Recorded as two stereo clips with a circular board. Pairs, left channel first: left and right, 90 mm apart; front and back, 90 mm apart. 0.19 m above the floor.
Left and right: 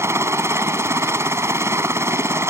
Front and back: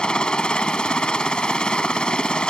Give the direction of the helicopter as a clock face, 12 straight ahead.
2 o'clock.